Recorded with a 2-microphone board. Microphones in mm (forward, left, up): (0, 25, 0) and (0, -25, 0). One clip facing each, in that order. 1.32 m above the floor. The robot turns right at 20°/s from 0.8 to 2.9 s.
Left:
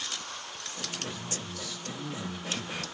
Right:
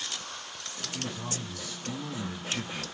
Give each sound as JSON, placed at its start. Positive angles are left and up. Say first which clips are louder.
{"t": 0.9, "sound": "a man speaking", "louder": "right 4 dB", "azimuth_deg": -75, "distance_m": 0.8}